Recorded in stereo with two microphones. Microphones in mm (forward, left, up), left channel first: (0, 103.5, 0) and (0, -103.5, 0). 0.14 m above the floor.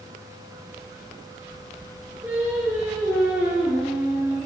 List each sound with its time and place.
2.2 s singing: 15° right (ahead or behind), 7 m